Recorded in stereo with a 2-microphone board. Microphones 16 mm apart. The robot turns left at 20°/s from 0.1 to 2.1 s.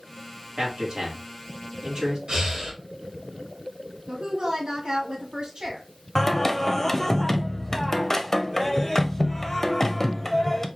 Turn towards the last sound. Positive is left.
turn(degrees=25)  # may be behind; listen again after turning